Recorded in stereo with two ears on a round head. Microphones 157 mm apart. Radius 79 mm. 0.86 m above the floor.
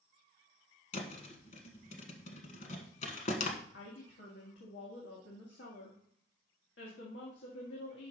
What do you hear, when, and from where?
0.9 s a thud: 45° left (ahead or behind), 1.3 m
3.7 s a woman speaking: 70° left (ahead or behind), 1.6 m